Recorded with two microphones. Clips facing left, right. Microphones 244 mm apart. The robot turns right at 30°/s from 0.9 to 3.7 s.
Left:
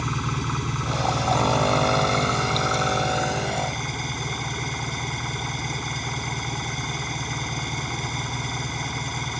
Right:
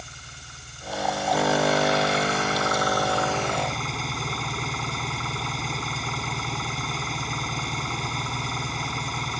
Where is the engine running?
95° left; by 9.4 s straight behind.